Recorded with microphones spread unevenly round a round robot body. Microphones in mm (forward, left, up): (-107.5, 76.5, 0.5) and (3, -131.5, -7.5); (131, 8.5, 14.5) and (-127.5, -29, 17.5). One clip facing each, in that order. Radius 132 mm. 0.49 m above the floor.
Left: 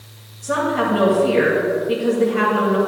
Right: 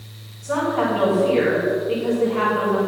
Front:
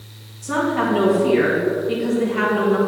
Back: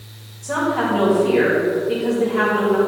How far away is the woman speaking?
About 3 m.